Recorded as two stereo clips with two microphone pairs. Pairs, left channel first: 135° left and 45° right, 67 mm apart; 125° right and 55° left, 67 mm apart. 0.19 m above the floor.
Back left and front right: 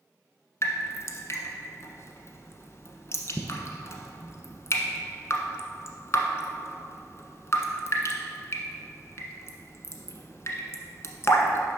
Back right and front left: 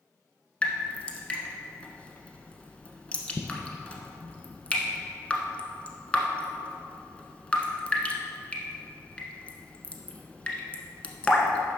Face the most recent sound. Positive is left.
turn(degrees=165)